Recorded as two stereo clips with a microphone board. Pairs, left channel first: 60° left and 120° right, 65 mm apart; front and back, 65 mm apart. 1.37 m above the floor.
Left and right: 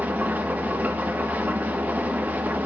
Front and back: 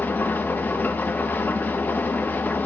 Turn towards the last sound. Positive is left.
turn(degrees=-60)